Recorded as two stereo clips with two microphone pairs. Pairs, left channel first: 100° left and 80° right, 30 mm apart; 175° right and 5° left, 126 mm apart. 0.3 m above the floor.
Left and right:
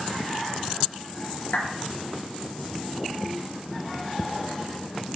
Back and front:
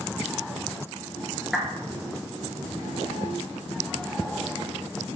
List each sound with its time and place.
1.5 s a clap: 95° left, 4.5 m